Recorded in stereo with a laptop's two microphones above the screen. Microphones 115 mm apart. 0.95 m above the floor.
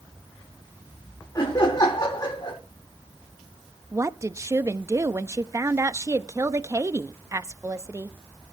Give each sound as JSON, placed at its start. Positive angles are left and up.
{"t": 1.4, "sound": "laughter", "side_deg": 35, "distance_m": 3.5}
{"t": 3.9, "sound": "a woman speaking", "side_deg": -25, "distance_m": 0.8}